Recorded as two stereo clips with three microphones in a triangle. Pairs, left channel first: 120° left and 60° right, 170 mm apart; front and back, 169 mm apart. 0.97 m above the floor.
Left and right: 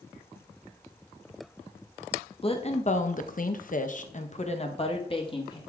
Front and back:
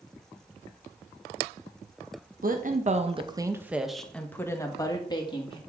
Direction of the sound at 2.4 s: 170° left.